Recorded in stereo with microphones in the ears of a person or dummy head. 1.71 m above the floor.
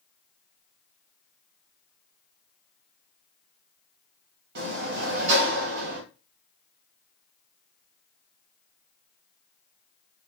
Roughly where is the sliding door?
Right.